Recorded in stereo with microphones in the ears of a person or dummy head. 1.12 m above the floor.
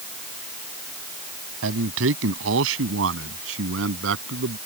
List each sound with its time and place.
1.6 s a man speaking: 80° right